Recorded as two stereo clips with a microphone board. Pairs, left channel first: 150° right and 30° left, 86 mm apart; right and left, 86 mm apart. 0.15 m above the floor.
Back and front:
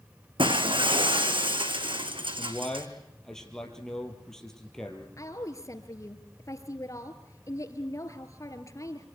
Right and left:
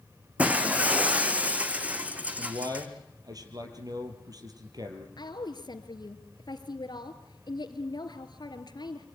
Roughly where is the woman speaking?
Right.